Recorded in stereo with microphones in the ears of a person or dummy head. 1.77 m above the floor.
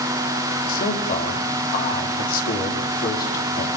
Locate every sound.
0.7 s a man speaking: 50° left (ahead or behind), 5 m